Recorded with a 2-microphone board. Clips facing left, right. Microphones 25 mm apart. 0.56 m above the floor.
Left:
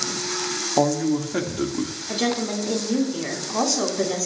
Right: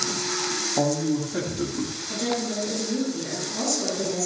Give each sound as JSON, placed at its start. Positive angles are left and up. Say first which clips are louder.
{"t": 0.8, "sound": "a man speaking", "louder": "left 4 dB", "side_deg": 30, "distance_m": 1.3}
{"t": 2.1, "sound": "a woman speaking", "louder": "left 4 dB", "side_deg": 80, "distance_m": 4.0}